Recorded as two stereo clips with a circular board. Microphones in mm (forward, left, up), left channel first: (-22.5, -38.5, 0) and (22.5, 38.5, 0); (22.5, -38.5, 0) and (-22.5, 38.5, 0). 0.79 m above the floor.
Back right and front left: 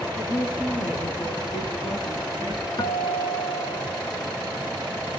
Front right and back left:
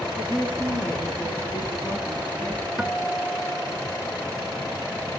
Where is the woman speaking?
140° right, 9.5 m; by 2.7 s 120° right, 11 m.